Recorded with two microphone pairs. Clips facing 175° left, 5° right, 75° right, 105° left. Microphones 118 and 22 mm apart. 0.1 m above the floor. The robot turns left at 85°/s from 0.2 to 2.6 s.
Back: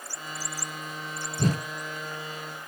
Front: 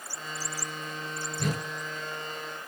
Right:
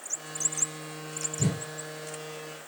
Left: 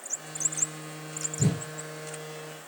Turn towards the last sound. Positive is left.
turn(degrees=90)